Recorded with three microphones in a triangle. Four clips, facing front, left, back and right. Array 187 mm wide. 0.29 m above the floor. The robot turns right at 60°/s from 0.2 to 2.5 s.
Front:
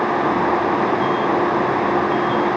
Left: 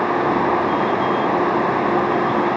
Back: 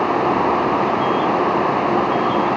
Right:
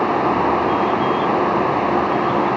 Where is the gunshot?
I don't hear a gunshot.